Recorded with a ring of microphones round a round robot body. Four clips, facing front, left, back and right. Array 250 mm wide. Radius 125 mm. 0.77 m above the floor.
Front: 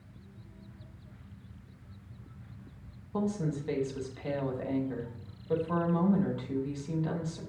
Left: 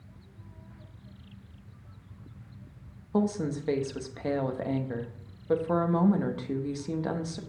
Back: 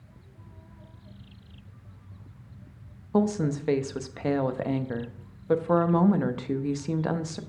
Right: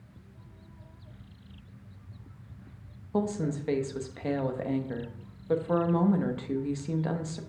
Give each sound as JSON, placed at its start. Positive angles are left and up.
{"t": 3.1, "sound": "a woman speaking", "azimuth_deg": 175, "distance_m": 0.7}